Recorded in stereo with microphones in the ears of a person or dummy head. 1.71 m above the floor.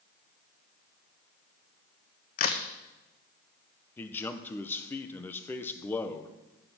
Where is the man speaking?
10° left (ahead or behind), 1.0 m.